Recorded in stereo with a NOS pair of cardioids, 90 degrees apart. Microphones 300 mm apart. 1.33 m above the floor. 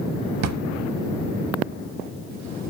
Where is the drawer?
65° right, 1.5 m.